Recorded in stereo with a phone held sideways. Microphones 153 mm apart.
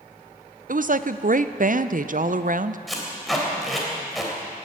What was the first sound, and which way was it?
A woman speaking, 60° right (ahead or behind).